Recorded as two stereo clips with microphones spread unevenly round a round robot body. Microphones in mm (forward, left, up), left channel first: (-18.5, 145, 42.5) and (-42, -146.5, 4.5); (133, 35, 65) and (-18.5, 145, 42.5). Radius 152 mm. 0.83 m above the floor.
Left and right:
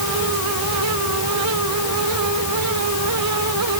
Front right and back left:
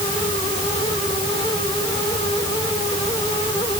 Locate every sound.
Only background noise.